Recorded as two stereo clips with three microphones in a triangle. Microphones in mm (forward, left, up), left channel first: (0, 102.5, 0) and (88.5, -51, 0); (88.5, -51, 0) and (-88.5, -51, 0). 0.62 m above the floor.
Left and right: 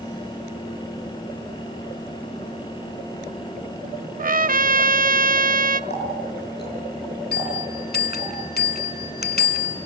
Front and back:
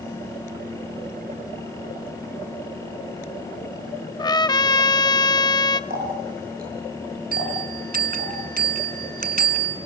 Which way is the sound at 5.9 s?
145° left.